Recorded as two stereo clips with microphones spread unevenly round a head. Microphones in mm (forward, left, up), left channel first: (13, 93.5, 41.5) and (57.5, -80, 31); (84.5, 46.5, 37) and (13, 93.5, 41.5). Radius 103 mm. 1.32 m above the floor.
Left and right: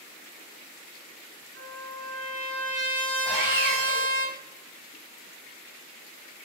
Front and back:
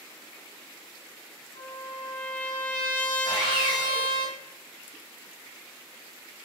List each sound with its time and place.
1.6 s a trumpet: 85° right, 1.2 m
3.2 s sawing: 150° right, 1.1 m